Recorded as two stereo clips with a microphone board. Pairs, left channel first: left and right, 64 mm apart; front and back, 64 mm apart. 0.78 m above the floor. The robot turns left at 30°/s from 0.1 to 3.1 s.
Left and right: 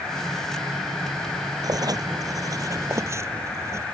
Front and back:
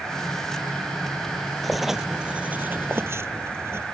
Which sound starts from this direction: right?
Writing, at 1.6 s.